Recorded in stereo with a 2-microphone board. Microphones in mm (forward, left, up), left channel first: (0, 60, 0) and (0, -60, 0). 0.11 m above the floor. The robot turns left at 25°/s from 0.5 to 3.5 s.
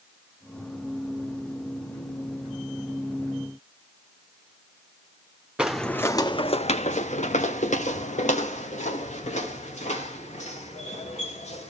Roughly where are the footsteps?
Centre.